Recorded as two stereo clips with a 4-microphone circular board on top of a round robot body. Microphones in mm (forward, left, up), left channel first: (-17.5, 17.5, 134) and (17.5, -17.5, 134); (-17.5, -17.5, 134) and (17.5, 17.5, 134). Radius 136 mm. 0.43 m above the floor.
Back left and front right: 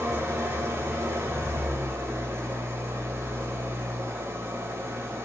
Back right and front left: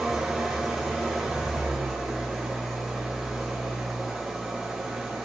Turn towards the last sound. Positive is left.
turn(degrees=-35)